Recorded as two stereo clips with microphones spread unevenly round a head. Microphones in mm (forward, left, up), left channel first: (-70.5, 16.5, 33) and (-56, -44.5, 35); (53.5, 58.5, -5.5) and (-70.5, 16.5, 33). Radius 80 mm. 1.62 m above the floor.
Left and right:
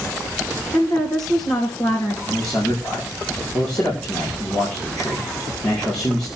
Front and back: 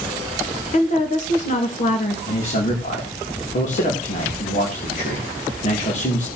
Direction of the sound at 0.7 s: 50° left.